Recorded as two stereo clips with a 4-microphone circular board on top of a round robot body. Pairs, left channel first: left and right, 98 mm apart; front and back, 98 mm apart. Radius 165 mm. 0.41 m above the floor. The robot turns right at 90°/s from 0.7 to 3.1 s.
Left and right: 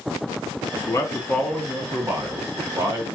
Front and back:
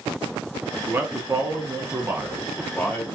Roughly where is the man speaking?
Behind left.